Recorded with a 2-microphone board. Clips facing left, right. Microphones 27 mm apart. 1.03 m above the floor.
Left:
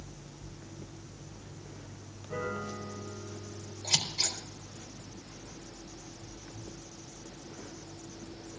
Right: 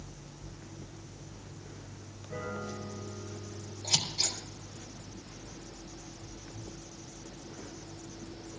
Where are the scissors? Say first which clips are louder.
Even; 55° left (ahead or behind), 3 m.